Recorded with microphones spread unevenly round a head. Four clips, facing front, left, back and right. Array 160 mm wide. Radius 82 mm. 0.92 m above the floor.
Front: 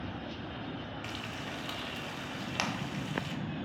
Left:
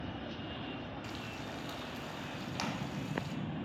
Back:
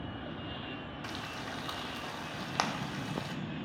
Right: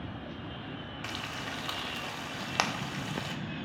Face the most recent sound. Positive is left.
turn(degrees=-105)